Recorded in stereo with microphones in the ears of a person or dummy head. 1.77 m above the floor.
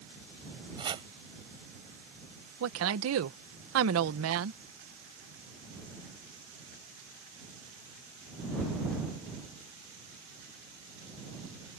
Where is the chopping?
25° right (ahead or behind).